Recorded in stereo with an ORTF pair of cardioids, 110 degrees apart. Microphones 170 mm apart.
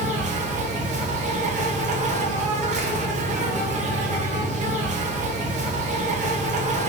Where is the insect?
45° right, 0.8 m.